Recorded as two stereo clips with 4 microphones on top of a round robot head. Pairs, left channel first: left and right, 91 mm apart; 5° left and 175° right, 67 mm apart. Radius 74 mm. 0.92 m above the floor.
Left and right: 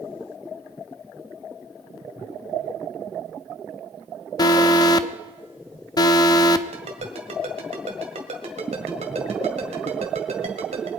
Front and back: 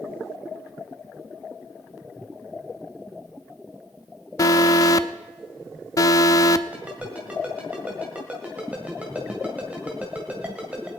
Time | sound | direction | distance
4.4 | an alarm | 45° left | 0.7 m
6.7 | a ringtone | 95° right | 1.8 m